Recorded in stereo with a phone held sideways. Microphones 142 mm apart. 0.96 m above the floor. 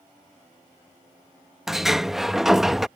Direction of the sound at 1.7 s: Centre (ahead or behind).